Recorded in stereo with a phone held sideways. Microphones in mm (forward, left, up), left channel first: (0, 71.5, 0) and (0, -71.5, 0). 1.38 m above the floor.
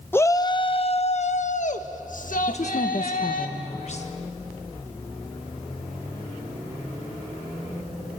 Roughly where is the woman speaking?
Left.